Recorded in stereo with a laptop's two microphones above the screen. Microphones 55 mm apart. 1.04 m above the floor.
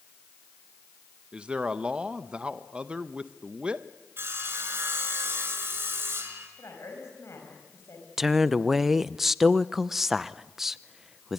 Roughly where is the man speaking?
Centre.